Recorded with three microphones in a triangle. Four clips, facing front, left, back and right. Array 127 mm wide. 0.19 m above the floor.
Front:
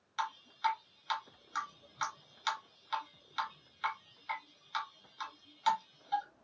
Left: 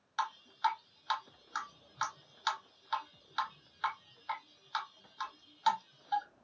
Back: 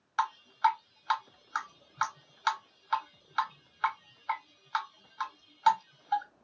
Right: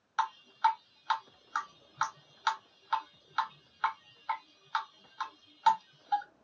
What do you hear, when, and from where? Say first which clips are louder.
0.2 s dripping: right 4 dB, back 7 dB; 145° right, 1.8 m